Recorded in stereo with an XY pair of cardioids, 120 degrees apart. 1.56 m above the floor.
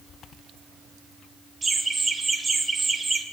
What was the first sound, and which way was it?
Laughter, 20° right.